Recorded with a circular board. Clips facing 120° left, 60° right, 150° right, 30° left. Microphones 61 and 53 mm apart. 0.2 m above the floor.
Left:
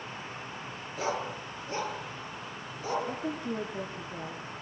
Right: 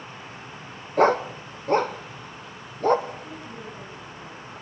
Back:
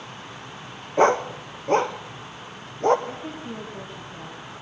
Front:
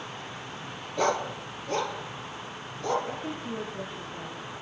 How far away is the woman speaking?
About 7.5 m.